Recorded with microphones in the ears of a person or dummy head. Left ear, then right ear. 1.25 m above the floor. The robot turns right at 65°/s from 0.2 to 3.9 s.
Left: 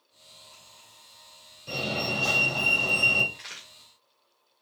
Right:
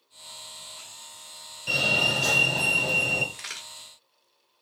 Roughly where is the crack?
Right.